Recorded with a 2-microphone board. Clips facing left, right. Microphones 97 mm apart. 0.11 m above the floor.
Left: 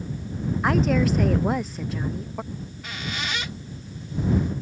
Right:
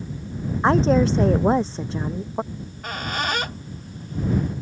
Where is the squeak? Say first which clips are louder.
Right 4 dB; 45° right (ahead or behind).